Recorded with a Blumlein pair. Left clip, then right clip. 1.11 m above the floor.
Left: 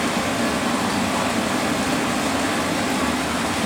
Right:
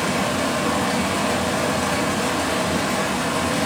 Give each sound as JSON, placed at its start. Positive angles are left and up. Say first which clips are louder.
{"t": 0.0, "sound": "running water", "louder": "even", "azimuth_deg": 0, "distance_m": 0.9}